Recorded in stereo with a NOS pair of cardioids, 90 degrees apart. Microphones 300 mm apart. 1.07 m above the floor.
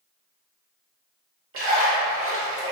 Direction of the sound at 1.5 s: 45° right.